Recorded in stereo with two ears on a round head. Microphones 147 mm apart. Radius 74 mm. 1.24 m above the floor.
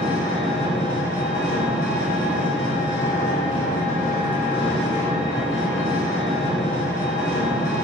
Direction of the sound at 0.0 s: 55° left (ahead or behind).